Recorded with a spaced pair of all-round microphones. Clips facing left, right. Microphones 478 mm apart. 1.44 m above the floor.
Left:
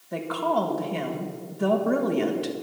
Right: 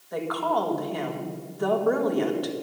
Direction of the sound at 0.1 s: 45° left (ahead or behind).